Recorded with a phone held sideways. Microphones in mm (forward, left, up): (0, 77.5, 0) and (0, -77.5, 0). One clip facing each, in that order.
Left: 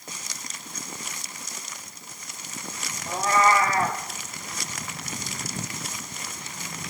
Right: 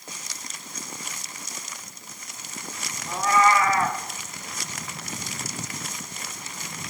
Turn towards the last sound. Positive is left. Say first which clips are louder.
# right 1 dB
turn(degrees=35)  # may be behind; listen again after turning